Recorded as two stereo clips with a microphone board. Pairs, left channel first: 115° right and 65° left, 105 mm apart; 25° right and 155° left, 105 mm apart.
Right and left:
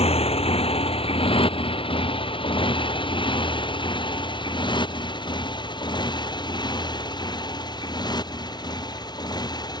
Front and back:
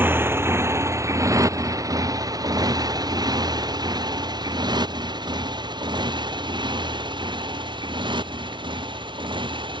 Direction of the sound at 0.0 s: 130° right.